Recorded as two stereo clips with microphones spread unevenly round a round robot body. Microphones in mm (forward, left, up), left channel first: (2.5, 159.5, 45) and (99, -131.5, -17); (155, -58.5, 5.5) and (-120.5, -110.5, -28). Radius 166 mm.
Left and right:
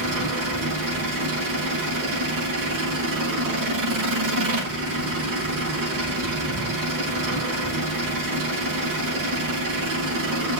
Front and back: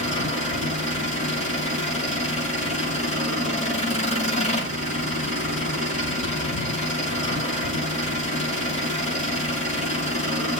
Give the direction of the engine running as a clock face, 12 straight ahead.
2 o'clock.